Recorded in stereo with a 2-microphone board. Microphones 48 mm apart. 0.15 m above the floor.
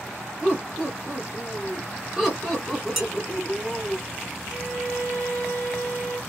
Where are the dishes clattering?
10° right (ahead or behind), 1.4 m.